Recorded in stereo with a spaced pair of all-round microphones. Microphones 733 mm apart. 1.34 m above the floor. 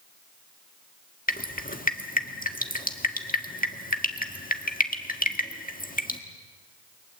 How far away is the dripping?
About 1.6 m.